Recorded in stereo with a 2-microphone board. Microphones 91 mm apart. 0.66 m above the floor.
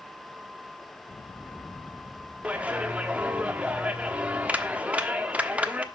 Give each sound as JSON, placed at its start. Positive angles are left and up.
{"t": 2.4, "sound": "a clap", "side_deg": -15, "distance_m": 1.2}